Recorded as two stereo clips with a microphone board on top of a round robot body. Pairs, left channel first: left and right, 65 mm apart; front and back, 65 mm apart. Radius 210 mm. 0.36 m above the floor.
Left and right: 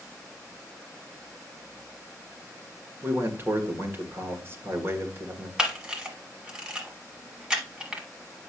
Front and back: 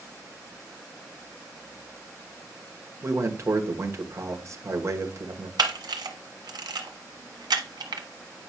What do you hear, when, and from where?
3.0 s a man speaking: 140° right, 1.8 m
5.6 s a camera shutter: 170° right, 1.1 m